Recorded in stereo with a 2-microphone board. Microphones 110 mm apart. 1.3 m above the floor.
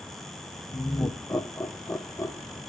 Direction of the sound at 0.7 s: 25° left (ahead or behind).